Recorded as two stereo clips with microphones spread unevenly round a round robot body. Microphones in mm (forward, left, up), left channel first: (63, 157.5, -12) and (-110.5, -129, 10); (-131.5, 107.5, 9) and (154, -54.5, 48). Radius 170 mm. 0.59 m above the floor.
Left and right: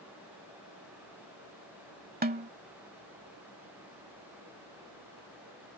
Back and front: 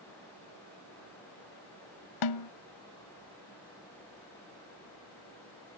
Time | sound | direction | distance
2.2 | a snare drum | 175° left | ?